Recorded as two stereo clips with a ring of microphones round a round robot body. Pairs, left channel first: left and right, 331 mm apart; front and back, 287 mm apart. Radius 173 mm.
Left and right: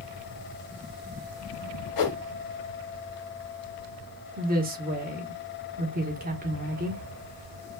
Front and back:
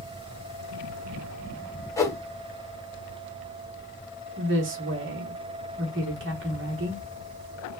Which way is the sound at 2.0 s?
80° left.